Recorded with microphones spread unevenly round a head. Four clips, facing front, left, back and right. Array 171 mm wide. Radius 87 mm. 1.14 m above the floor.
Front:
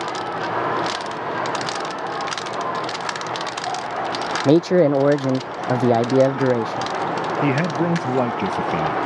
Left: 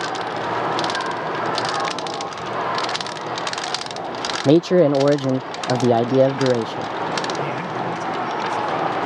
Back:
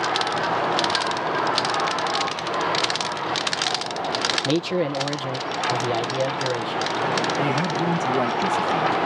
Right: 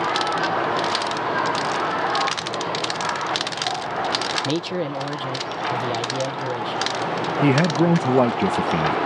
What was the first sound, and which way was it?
A man speaking, 60° left.